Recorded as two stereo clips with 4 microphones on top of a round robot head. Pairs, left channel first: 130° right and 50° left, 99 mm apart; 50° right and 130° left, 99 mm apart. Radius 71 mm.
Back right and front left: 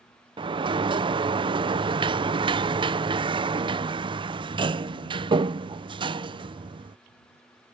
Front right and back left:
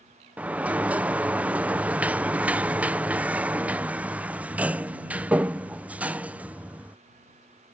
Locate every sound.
0.4 s a sliding door: 60° left